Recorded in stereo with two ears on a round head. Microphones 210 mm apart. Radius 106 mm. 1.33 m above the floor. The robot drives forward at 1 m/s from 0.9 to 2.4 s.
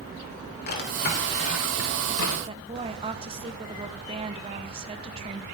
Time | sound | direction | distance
0.7 | a drawer | 40° left (ahead or behind) | 3.5 m
2.5 | a woman speaking | 25° right (ahead or behind) | 1.2 m